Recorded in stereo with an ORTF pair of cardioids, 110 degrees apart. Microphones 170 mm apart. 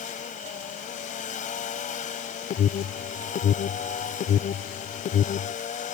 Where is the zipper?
I don't hear a zipper.